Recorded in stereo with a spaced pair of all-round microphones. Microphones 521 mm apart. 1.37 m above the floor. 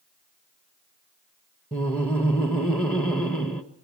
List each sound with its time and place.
1.7 s laughter: centre (ahead or behind), 1.2 m